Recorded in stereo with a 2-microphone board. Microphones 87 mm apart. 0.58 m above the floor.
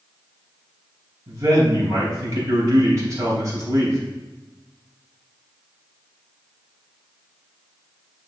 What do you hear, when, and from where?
1.3 s a man speaking: 40° right (ahead or behind), 4 m